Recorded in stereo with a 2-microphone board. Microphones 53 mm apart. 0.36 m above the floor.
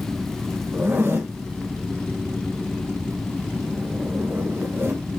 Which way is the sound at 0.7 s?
40° right (ahead or behind).